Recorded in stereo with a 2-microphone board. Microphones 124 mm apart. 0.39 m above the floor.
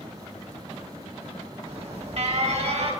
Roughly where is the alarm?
Right.